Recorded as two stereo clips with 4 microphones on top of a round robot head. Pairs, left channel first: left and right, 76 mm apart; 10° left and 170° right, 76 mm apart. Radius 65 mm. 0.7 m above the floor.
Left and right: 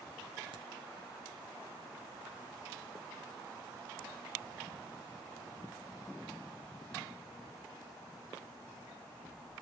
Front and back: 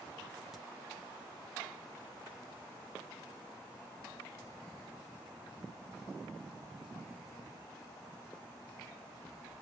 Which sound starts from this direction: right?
A crack, at 0.5 s.